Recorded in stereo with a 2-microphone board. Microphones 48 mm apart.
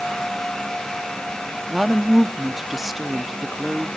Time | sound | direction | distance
1.7 | a woman speaking | 5° right (ahead or behind) | 0.6 m